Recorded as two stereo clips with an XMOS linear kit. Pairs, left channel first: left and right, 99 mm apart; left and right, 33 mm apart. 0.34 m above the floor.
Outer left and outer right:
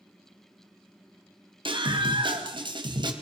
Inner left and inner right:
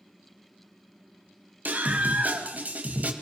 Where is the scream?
60° right (ahead or behind), 2.5 m; by 3.1 s 50° right (ahead or behind), 1.8 m.